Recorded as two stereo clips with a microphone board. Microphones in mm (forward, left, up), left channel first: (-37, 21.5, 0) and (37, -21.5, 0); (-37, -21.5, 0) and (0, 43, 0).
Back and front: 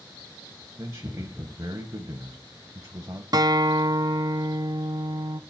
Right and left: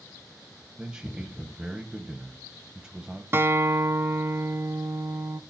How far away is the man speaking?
About 1.3 m.